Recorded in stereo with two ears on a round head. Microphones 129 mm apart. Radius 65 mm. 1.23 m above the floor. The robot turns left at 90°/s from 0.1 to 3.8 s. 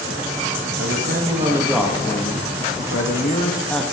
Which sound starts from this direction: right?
A man speaking, at 0.8 s.